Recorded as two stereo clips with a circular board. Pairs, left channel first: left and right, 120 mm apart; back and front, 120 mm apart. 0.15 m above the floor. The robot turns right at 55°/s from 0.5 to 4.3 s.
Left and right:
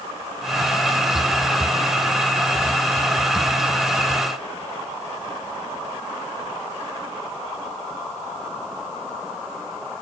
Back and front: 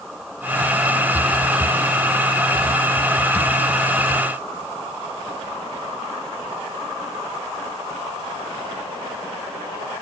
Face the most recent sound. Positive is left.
No sound to turn to.